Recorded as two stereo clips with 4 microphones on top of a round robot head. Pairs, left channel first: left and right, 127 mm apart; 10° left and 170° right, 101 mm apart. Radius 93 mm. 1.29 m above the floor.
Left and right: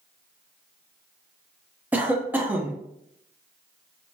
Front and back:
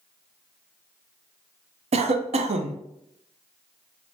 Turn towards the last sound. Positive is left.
turn(degrees=-170)